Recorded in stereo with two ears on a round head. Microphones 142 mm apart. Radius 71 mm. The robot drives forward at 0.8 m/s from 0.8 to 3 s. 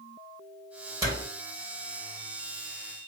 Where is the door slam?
20° right (ahead or behind), 2.5 m.